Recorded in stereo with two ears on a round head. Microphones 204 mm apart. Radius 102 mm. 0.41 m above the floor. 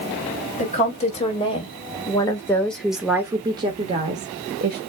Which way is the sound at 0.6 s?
30° left (ahead or behind).